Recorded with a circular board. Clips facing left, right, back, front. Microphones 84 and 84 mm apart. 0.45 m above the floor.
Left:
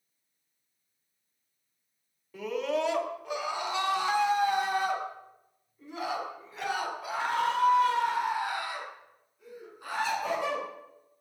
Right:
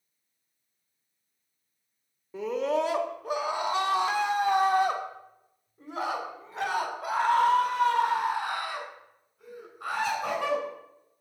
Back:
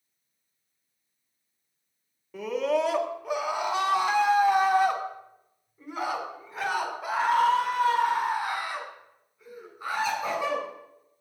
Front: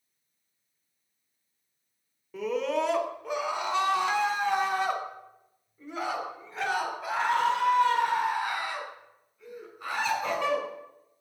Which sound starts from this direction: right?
A scream, at 2.3 s.